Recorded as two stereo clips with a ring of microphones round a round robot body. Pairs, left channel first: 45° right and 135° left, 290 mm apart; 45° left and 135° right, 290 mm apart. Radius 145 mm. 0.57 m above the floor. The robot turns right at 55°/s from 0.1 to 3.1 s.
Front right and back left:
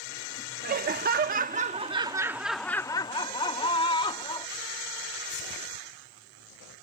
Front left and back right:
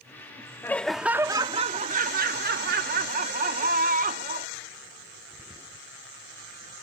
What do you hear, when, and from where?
0.6 s laughter: 120° left; by 4.5 s 105° right